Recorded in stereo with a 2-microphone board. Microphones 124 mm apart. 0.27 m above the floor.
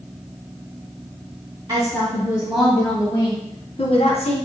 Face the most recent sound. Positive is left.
turn(degrees=60)  # may be behind; listen again after turning